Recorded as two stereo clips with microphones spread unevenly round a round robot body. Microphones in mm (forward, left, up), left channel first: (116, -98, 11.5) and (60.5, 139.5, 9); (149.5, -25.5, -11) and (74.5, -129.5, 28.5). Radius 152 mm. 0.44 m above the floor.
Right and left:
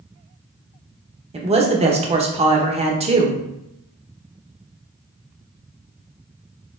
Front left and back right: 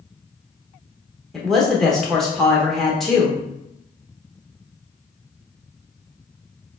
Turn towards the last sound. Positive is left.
turn(degrees=95)